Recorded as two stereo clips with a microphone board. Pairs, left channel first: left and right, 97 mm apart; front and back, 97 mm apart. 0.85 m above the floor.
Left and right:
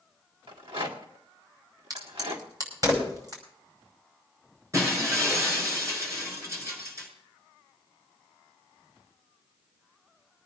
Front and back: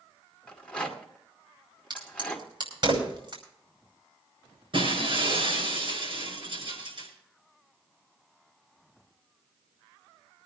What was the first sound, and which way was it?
A rattle, 80° right.